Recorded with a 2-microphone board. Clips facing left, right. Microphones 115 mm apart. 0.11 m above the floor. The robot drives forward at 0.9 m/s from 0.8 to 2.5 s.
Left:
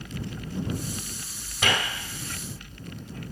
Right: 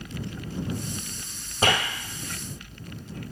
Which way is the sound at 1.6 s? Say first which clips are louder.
Right 4 dB; 40° right (ahead or behind).